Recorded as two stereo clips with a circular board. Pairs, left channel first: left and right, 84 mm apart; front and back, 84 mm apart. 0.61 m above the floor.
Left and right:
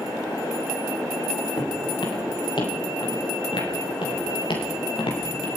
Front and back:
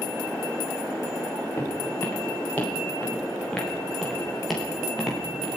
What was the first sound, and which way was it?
Footsteps, 65° left.